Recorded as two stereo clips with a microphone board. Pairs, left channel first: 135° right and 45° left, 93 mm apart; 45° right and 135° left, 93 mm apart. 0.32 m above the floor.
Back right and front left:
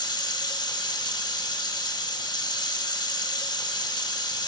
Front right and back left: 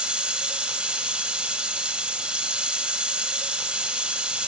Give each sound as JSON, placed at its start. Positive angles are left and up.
{"t": 0.0, "sound": "running water", "azimuth_deg": -150, "distance_m": 1.0}